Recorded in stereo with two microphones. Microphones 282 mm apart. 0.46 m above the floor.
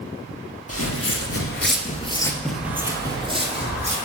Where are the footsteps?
60° left (ahead or behind), 0.8 m; by 4.0 s 25° right (ahead or behind), 1.3 m.